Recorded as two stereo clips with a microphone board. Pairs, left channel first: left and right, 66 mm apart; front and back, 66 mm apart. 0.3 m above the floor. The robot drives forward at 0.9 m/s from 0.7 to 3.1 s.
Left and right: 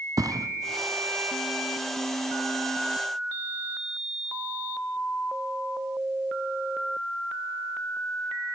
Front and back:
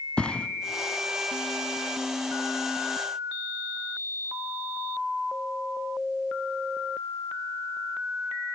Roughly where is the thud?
Right.